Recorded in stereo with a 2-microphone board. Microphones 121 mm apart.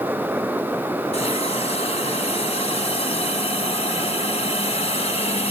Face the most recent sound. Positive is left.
turn(degrees=60)  # may be behind; listen again after turning